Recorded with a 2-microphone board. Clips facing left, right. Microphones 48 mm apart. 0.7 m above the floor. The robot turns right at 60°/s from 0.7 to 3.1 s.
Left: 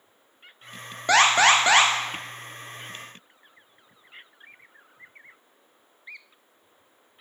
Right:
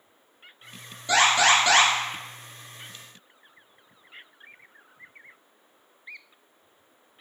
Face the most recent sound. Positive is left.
turn(degrees=-120)